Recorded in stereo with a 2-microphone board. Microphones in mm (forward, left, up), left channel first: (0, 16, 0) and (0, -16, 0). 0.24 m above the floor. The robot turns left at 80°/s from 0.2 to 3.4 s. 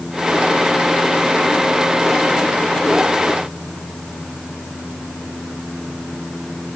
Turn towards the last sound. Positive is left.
No sound to turn to.